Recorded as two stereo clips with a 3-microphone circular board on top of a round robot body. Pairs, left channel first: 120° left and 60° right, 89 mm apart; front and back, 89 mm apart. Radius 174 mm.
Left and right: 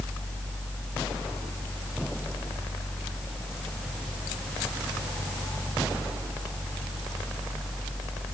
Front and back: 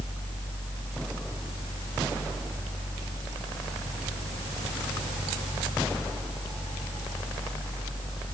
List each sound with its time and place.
Only background noise.